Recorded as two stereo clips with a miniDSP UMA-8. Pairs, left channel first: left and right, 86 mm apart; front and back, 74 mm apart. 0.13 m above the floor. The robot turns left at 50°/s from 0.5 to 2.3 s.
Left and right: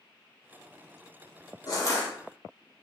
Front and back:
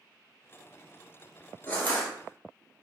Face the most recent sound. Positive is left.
turn(degrees=35)